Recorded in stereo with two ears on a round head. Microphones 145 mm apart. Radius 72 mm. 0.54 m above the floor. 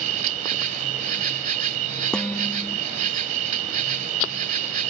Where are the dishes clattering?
5° left (ahead or behind).